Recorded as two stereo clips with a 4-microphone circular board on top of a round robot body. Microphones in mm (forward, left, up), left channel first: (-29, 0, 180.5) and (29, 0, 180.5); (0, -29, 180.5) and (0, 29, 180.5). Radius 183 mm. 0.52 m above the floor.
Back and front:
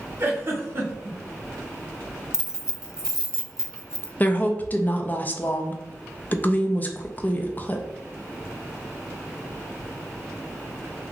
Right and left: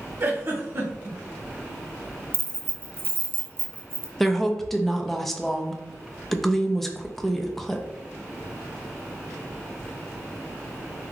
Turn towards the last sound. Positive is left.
turn(degrees=-175)